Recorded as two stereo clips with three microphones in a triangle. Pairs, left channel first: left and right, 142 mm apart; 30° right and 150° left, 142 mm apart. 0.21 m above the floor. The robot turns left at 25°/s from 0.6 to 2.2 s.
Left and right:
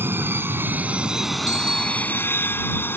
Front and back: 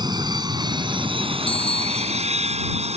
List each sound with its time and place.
0.0 s an aircraft: 160° right; by 3.0 s 160° left
1.5 s a bicycle bell: 155° left; by 2.3 s 140° left